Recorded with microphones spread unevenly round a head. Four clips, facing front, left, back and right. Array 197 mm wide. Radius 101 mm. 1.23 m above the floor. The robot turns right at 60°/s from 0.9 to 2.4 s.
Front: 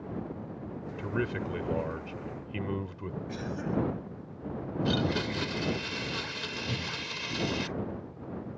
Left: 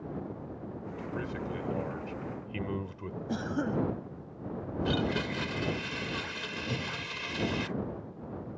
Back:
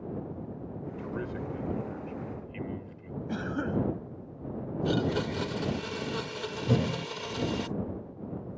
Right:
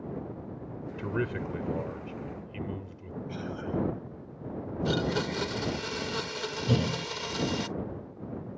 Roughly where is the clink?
No clink in this recording.